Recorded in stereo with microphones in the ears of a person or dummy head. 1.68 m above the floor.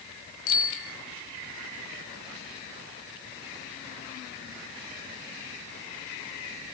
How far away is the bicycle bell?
About 3 m.